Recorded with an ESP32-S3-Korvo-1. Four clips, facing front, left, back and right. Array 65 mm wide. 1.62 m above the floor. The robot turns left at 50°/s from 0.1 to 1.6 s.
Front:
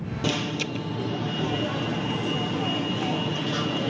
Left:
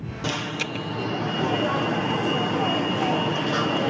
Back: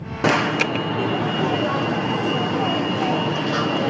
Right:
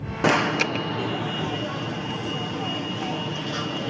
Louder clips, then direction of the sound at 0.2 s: Right 8 dB, back 10 dB; 145° right.